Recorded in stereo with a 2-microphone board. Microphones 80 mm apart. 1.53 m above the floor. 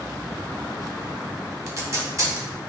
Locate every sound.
1.7 s tape being pulled: 40° right (ahead or behind), 1.1 m